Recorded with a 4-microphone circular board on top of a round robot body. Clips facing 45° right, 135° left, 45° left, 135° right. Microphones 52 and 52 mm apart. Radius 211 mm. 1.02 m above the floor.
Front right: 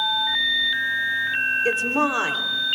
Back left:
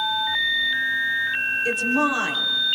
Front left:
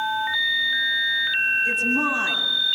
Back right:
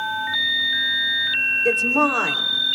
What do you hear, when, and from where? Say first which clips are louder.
1.6 s a woman speaking: even, back right 3 dB; 105° right, 3.5 m